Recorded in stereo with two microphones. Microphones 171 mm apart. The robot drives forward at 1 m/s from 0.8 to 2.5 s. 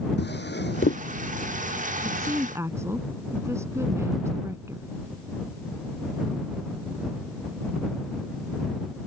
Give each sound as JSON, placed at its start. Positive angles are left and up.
{"t": 0.2, "sound": "a drawer", "side_deg": 90}
{"t": 2.0, "sound": "a woman speaking", "side_deg": -15}